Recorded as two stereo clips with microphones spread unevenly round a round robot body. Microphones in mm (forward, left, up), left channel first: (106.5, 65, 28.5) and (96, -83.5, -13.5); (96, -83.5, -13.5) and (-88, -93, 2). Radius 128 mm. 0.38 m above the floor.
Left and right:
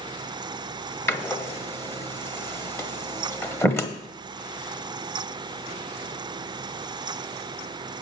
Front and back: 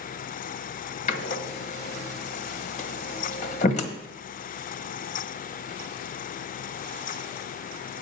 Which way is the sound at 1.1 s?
Straight ahead.